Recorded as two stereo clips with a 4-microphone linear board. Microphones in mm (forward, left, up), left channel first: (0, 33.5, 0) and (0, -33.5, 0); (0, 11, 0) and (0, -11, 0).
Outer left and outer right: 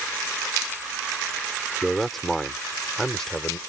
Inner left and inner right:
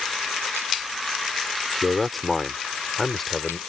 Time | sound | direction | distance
1.8 | a man speaking | centre (ahead or behind) | ?